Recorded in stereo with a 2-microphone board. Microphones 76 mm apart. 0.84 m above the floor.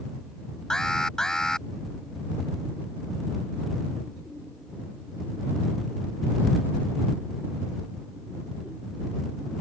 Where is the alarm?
10° left (ahead or behind).